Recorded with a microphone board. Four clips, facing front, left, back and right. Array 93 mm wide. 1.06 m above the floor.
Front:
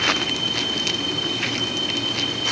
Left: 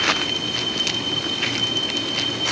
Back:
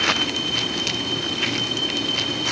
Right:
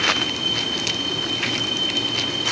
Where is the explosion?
No explosion in this recording.